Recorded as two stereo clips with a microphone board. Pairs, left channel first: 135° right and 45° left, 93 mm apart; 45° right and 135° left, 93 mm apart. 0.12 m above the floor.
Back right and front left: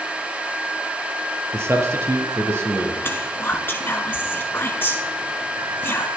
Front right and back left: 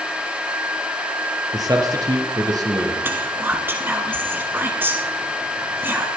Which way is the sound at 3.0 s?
Straight behind.